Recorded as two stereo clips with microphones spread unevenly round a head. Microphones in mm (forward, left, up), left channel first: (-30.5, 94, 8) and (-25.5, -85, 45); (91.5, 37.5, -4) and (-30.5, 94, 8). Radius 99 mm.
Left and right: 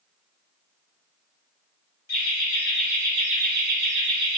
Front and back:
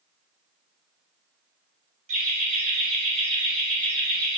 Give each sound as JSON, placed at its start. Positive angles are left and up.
{"t": 2.1, "sound": "laughter", "azimuth_deg": 150, "distance_m": 0.9}